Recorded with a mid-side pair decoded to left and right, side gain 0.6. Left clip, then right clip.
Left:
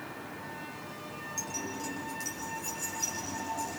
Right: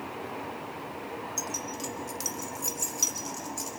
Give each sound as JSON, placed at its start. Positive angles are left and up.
{"t": 1.4, "sound": "keys jangling", "azimuth_deg": -35, "distance_m": 2.0}